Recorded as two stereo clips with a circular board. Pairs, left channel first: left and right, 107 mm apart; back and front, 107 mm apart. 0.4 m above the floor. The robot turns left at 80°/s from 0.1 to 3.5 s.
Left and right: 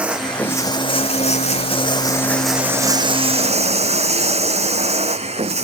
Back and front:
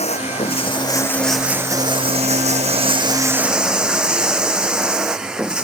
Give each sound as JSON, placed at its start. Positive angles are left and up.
{"t": 0.0, "sound": "running water", "azimuth_deg": -170}